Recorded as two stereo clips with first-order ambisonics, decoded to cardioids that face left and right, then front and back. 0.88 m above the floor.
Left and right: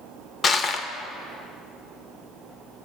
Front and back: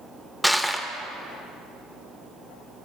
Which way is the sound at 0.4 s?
90° left.